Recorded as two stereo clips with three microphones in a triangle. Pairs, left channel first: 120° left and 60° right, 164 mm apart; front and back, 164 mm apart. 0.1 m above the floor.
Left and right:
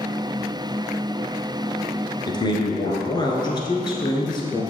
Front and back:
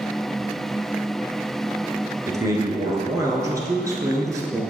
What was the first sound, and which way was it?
A man speaking, 135° left.